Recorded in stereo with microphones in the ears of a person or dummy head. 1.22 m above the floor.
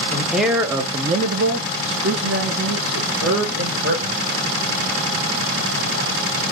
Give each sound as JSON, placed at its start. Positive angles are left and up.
{"t": 0.1, "sound": "a man speaking", "side_deg": 5, "distance_m": 0.7}